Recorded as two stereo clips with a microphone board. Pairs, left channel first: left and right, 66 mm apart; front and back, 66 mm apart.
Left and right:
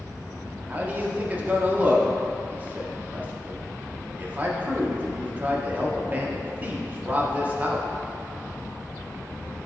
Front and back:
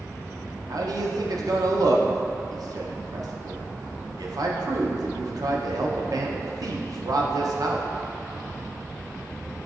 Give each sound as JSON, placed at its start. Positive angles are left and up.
{"t": 0.7, "sound": "a man speaking", "azimuth_deg": -155, "distance_m": 0.6}